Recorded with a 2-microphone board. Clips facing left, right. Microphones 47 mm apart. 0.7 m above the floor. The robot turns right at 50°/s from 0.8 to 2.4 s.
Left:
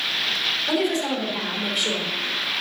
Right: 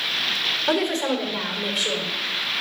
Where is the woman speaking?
50° right, 3.5 m; by 2.1 s 15° left, 3.5 m.